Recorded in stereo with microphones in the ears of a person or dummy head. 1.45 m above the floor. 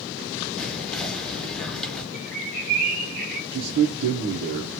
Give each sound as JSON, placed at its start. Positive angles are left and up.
{"t": 0.6, "sound": "whispering", "side_deg": 0, "distance_m": 0.7}
{"t": 2.1, "sound": "a bird", "side_deg": -45, "distance_m": 0.8}
{"t": 3.5, "sound": "a man speaking", "side_deg": -60, "distance_m": 0.7}